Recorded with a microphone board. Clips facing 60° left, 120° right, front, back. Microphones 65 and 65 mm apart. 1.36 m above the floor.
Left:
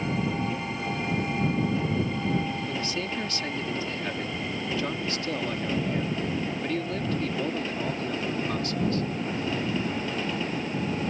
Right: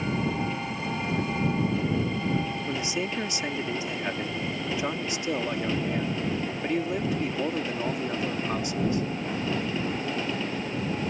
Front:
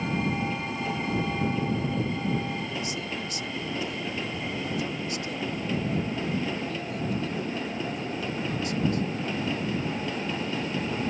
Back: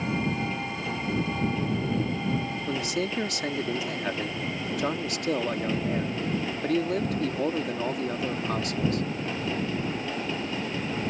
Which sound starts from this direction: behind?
A man speaking, at 2.7 s.